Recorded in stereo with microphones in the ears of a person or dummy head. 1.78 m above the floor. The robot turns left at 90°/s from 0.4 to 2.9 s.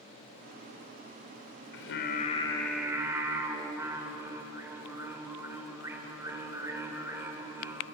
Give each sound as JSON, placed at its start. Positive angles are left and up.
{"t": 1.7, "sound": "singing", "azimuth_deg": 90, "distance_m": 2.5}